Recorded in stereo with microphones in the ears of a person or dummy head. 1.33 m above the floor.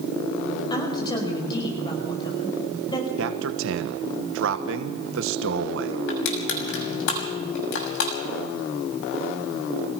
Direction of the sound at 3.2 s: 70° right (ahead or behind).